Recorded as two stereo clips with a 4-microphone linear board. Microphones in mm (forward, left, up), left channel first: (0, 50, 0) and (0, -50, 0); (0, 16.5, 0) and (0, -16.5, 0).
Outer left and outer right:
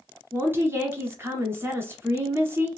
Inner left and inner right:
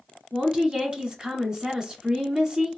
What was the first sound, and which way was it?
A woman speaking, 20° right (ahead or behind).